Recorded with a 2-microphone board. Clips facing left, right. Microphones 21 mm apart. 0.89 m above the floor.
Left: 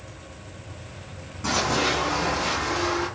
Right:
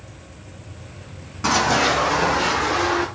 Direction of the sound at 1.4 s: 35° right (ahead or behind).